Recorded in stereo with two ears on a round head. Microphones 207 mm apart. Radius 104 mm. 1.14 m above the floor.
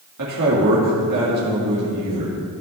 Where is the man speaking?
70° right (ahead or behind), 2.5 m.